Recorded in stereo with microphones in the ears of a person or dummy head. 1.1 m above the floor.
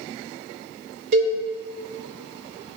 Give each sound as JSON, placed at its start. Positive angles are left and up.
{"t": 1.1, "sound": "a cowbell", "side_deg": -60, "distance_m": 1.6}